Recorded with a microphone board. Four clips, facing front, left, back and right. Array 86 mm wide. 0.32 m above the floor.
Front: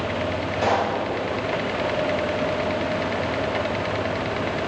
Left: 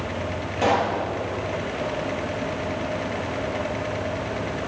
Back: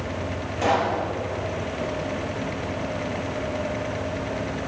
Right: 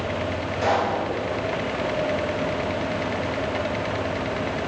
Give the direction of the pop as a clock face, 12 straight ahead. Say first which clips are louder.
Left 1 dB, even; 9 o'clock.